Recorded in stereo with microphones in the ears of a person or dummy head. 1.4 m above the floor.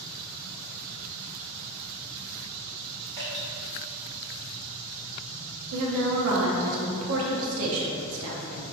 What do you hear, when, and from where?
3.2 s dripping: 20° right (ahead or behind), 0.9 m
5.7 s a woman speaking: 75° right (ahead or behind), 0.6 m